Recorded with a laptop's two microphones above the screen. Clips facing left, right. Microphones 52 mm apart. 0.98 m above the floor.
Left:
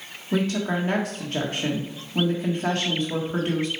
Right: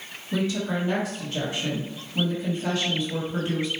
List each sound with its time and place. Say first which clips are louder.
0.3 s a woman speaking: left 2 dB; 50° left (ahead or behind), 1.6 m